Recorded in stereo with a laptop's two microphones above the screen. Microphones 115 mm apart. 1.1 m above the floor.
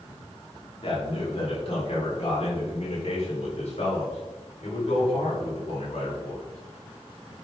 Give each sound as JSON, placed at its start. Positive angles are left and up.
{"t": 0.8, "sound": "a man speaking", "side_deg": 50, "distance_m": 3.0}